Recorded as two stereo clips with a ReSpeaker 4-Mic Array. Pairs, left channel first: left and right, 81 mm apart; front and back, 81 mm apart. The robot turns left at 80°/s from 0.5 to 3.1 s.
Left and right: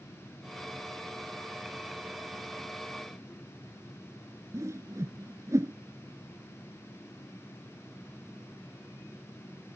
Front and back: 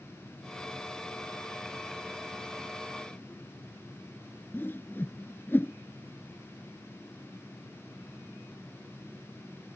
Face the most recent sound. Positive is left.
turn(degrees=-55)